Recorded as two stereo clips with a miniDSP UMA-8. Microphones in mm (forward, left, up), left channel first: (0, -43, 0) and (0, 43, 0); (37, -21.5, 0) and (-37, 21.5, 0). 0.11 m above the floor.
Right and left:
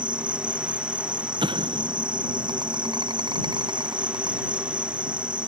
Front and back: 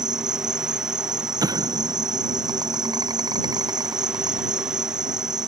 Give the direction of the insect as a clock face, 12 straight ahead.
8 o'clock.